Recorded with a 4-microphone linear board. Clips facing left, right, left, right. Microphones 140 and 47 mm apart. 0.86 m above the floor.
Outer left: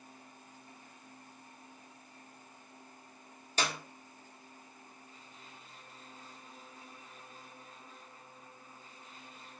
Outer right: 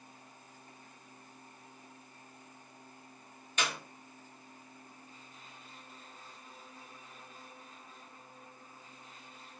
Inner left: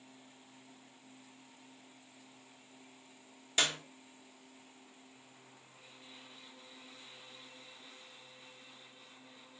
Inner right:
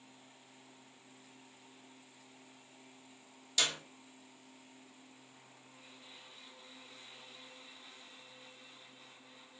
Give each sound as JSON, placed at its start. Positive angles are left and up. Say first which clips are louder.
{"t": 3.6, "sound": "a clap", "louder": "outer left 1 dB, inner left 2 dB", "side_deg": 35, "distance_m": 0.7}